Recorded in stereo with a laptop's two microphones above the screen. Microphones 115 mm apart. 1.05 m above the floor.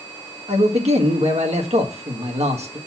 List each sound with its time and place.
0.5 s a man speaking: 70° right (ahead or behind), 1.3 m